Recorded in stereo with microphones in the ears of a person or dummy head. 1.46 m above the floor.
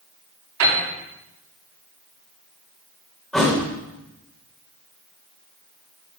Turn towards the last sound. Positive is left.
turn(degrees=0)  # may be behind; listen again after turning